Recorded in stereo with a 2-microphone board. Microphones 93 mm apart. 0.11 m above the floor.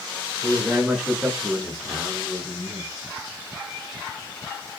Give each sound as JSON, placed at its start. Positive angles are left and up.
{"t": 0.4, "sound": "a man speaking", "side_deg": -25, "distance_m": 1.4}